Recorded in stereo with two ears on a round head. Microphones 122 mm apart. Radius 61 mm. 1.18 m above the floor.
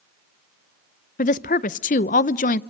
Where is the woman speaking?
60° left (ahead or behind), 0.6 m.